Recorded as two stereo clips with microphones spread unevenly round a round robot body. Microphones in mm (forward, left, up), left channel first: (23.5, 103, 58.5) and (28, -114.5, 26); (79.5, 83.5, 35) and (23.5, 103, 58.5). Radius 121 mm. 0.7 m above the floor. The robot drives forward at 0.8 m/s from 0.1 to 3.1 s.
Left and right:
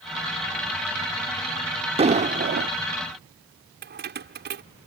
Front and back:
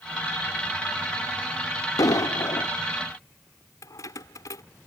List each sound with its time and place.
2.0 s an explosion: 25° right; by 2.7 s 55° right
3.8 s keys jangling: 50° right